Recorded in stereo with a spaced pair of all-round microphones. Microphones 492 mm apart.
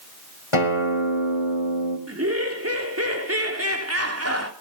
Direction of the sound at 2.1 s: 30° right (ahead or behind).